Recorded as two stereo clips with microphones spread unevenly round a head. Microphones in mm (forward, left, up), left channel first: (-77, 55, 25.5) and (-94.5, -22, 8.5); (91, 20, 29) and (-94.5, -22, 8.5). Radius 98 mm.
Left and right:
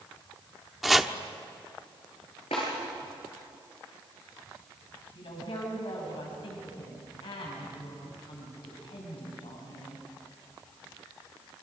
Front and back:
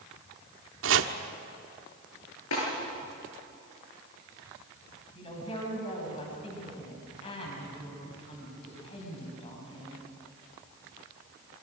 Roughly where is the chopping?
Behind.